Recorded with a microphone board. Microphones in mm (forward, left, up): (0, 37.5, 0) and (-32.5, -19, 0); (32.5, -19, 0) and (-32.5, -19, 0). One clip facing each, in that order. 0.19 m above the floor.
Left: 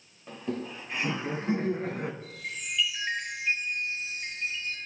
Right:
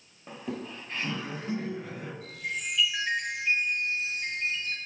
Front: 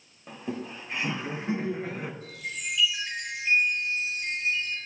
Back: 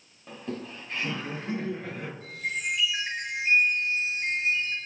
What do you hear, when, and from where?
0.3 s laughter: 65° right, 1.2 m; by 2.1 s 65° left, 1.5 m
2.2 s a chime: 125° right, 8 m